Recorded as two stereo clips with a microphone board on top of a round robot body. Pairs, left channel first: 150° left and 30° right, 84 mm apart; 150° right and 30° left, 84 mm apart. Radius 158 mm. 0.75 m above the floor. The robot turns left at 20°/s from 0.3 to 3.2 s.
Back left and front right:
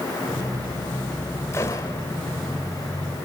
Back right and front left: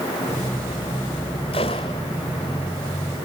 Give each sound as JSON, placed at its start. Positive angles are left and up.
{"t": 1.5, "sound": "a gunshot", "azimuth_deg": -150, "distance_m": 0.6}